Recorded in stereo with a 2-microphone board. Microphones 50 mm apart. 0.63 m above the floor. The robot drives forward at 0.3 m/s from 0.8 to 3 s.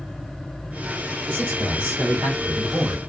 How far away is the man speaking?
About 2.0 m.